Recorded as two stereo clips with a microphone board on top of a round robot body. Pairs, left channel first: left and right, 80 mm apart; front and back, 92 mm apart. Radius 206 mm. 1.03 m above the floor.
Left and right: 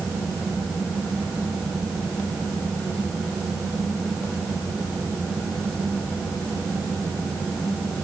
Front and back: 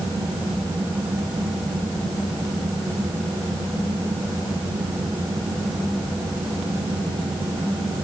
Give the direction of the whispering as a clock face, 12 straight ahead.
I don't hear whispering.